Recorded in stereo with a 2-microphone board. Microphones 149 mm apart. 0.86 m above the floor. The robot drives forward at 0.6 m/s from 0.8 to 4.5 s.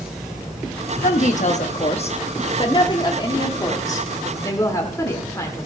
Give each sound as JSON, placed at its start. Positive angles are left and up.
{"t": 1.0, "sound": "a woman speaking", "side_deg": 60, "distance_m": 1.1}